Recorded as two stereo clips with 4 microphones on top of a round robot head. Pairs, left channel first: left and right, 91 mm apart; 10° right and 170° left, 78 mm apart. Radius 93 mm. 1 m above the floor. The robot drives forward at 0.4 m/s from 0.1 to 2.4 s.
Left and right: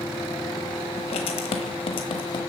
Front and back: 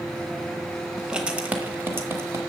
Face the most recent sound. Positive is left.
turn(degrees=120)